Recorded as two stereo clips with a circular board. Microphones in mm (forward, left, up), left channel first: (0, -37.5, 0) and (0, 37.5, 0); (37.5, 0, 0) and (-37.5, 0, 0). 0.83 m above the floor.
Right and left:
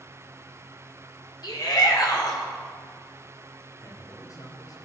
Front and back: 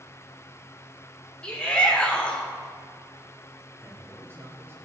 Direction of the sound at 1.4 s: 75° right.